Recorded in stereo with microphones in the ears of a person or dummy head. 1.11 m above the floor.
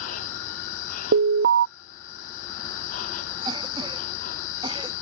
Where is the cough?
25° right (ahead or behind).